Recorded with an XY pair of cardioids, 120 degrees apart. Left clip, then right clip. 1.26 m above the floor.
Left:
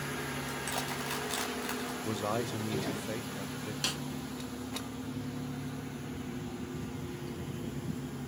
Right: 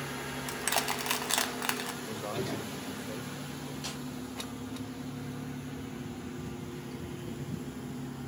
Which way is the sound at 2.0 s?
45° left.